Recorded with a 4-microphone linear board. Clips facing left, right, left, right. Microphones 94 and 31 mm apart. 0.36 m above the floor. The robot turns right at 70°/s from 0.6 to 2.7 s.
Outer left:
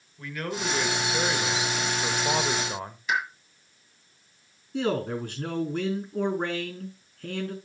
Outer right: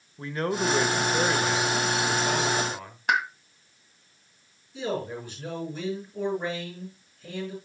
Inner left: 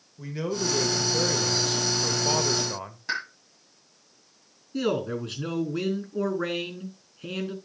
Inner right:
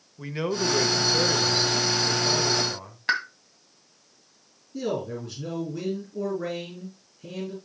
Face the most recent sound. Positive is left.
turn(degrees=60)  # may be behind; listen again after turning